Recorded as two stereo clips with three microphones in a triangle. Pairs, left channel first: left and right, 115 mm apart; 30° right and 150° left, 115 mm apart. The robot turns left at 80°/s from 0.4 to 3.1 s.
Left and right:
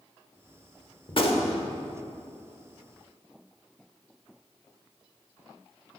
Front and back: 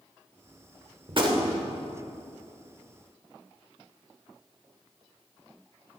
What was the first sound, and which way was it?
A gunshot, 125° left.